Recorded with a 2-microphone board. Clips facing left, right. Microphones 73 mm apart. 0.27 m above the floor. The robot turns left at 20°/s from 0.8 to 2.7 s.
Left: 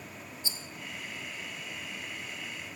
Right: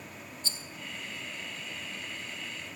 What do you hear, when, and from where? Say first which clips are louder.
0.4 s a rattle: right 1 dB; 15° left (ahead or behind), 2.5 m